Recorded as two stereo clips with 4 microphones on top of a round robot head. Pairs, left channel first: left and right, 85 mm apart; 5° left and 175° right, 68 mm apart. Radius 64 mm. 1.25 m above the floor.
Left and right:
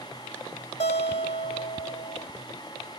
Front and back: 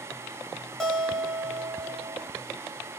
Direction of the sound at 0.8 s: 90° left.